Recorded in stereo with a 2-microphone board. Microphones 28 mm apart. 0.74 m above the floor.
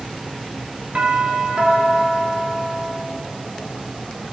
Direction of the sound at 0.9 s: 50° right (ahead or behind).